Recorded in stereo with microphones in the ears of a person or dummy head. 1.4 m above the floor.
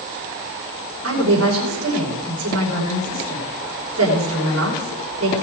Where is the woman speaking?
90° right, 5 m.